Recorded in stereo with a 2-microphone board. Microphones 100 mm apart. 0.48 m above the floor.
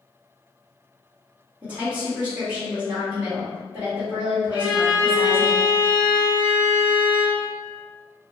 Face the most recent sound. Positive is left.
turn(degrees=40)  # may be behind; listen again after turning